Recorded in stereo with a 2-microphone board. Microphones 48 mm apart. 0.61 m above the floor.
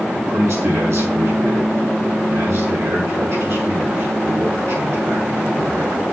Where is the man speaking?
80° right, 6 m.